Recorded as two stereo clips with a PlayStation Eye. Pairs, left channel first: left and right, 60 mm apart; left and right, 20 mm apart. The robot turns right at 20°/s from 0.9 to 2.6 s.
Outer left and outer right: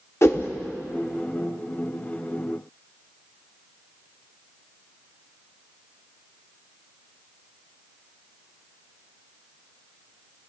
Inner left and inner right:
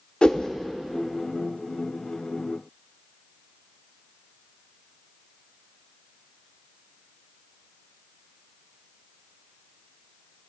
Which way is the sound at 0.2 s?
50° left (ahead or behind).